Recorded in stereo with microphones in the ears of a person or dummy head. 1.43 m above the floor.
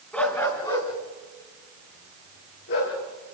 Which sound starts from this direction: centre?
A dog barking, at 0.1 s.